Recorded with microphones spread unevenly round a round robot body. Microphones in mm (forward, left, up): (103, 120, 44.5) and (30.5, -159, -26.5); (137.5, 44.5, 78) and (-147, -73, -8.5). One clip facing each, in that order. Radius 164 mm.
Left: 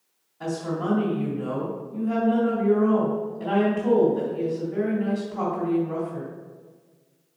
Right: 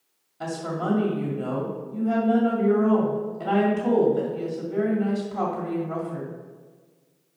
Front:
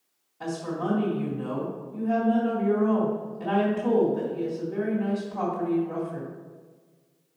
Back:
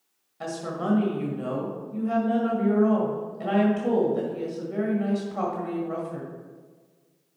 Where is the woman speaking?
135° right, 2.0 m.